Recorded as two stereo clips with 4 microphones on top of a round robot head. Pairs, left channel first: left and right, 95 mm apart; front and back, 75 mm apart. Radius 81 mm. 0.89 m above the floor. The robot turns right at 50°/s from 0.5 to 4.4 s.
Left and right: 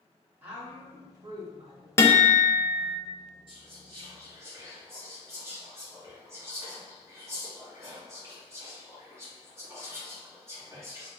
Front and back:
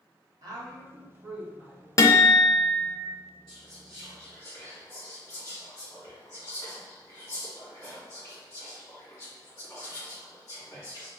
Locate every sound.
0.4 s a woman speaking: 160° right, 0.9 m; by 1.9 s 90° right, 0.9 m
2.0 s a guitar: 30° left, 0.6 m; by 3.0 s 80° left, 0.6 m
3.5 s whispering: 80° right, 1.8 m; by 11.1 s 35° right, 1.8 m